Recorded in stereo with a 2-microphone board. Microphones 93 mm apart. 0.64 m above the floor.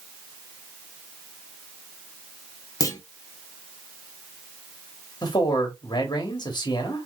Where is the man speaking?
45° left (ahead or behind), 1.5 m.